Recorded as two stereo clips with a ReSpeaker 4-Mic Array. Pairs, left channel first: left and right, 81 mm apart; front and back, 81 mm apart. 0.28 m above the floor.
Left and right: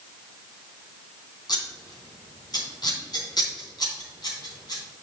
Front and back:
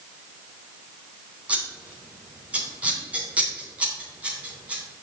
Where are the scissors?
110° left, 2.5 m.